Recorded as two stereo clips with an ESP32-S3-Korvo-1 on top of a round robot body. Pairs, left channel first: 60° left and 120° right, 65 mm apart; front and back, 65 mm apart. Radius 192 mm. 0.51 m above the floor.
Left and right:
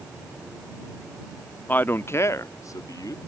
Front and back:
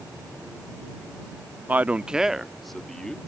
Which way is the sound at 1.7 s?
120° left.